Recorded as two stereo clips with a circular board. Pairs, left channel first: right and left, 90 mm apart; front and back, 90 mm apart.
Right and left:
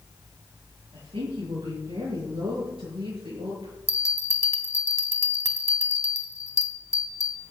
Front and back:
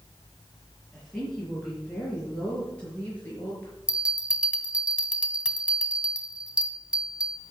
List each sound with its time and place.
0.9 s a woman speaking: 85° left, 6.5 m; by 3.7 s 75° left, 5 m
3.9 s a bell: 110° right, 1.4 m